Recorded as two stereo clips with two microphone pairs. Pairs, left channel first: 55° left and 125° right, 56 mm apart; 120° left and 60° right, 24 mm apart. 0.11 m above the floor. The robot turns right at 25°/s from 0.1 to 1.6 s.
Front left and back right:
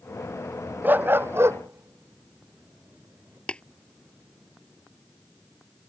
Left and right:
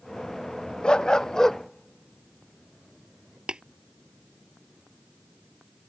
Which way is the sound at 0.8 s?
175° left.